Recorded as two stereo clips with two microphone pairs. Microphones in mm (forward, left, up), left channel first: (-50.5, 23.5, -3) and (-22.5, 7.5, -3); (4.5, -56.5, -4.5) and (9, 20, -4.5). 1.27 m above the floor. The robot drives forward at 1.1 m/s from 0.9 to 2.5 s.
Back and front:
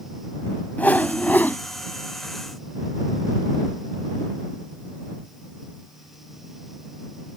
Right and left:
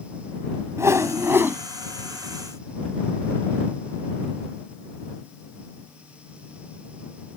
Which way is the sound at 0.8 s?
135° left.